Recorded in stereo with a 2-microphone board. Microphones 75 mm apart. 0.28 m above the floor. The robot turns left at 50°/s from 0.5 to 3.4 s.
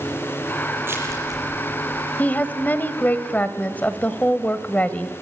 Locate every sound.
0.8 s crushing: 30° right (ahead or behind), 9 m; by 2.1 s 80° right, 9 m
2.2 s a woman speaking: 25° left (ahead or behind), 1.3 m; by 5.2 s 20° left (ahead or behind), 1.3 m